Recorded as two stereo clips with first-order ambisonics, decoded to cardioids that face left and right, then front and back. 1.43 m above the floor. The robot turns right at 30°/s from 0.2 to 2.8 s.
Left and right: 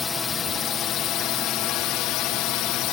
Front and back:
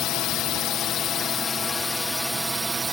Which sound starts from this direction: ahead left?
A drone, at 0.0 s.